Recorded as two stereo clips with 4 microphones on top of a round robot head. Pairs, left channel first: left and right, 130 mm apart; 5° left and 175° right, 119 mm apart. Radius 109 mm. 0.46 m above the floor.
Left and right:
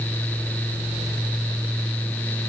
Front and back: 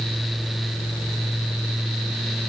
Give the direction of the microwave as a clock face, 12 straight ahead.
I don't hear a microwave.